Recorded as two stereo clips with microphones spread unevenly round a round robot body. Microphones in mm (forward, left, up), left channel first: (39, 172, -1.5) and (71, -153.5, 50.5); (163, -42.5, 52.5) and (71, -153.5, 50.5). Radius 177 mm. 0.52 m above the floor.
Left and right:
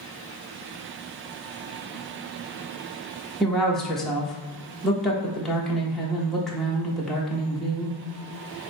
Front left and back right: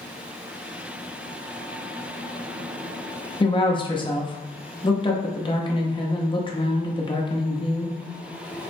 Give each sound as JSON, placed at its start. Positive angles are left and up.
{"t": 3.4, "sound": "a woman speaking", "azimuth_deg": 20, "distance_m": 1.1}